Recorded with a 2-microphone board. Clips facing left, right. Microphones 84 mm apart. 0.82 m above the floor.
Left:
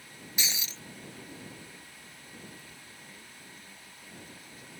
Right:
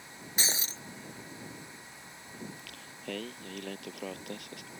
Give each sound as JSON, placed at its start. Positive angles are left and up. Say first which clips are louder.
{"t": 0.4, "sound": "breaking glass", "louder": "right 2 dB", "side_deg": -40}
{"t": 2.4, "sound": "singing", "louder": "right 4 dB", "side_deg": -85}